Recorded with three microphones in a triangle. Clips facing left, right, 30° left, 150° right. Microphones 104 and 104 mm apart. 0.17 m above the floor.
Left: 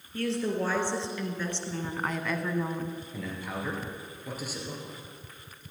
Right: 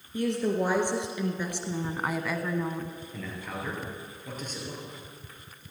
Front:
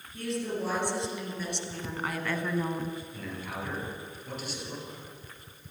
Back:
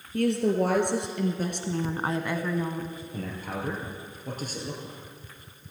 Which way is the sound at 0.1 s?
165° right.